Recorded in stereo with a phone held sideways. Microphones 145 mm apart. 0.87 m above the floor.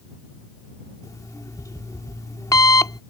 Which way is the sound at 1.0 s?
25° left (ahead or behind).